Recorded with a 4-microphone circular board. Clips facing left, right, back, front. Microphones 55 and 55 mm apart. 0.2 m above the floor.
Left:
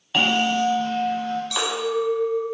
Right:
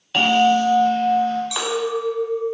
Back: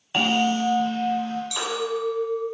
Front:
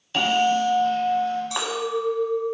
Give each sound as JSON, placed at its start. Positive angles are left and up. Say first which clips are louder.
{"t": 0.1, "sound": "a bell", "louder": "right 5 dB, front 2 dB", "azimuth_deg": 170, "distance_m": 0.8}
{"t": 1.5, "sound": "a clink", "louder": "right 1 dB, front 1 dB", "azimuth_deg": -15, "distance_m": 0.7}